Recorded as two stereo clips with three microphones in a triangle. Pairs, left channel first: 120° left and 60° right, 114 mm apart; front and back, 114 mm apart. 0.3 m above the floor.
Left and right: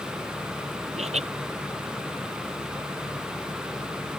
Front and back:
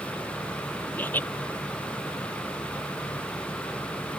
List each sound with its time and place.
1.0 s laughter: 75° right